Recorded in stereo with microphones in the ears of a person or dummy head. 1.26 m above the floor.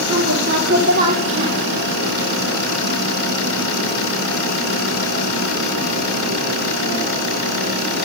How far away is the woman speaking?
About 3.5 m.